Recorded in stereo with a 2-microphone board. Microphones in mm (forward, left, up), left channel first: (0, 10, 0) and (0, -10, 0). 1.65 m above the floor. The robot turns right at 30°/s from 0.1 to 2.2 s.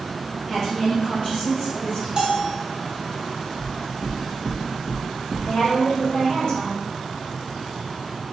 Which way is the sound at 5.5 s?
40° left (ahead or behind).